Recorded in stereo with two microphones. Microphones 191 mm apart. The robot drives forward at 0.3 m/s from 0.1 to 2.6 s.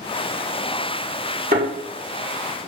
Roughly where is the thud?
Right.